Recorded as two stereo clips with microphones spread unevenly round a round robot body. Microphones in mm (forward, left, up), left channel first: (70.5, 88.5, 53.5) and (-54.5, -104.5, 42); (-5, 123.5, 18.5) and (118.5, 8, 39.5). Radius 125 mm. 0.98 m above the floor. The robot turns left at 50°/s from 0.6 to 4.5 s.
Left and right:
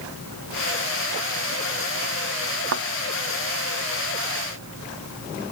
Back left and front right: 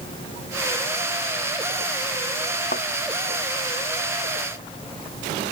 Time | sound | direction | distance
2.7 | a thud | 160° right | ?